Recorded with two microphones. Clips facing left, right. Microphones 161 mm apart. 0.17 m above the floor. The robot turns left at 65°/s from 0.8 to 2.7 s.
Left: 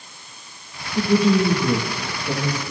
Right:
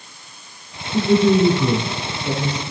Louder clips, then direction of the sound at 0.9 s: Right 3 dB; 70° right.